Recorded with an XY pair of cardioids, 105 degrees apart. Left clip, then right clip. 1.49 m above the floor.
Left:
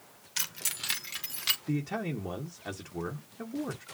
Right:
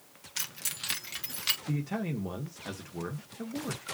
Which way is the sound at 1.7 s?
10° left.